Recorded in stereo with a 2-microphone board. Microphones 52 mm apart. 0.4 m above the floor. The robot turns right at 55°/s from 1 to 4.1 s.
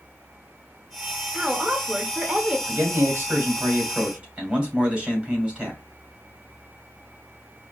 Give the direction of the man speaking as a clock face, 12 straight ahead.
3 o'clock.